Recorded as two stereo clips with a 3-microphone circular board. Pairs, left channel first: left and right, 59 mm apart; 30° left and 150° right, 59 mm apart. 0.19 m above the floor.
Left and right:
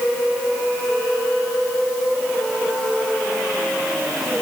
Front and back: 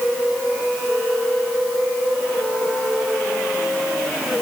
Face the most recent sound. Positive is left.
No sound to turn to.